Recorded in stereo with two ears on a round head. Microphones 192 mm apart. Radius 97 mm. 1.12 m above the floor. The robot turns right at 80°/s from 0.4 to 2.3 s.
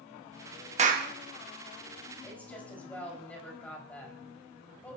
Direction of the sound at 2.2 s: 10° left (ahead or behind).